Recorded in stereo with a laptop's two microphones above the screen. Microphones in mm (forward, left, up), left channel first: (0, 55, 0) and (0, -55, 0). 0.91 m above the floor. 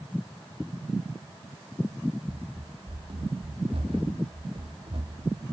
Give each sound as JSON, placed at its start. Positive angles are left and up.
{"t": 2.3, "sound": "running footsteps", "side_deg": -60}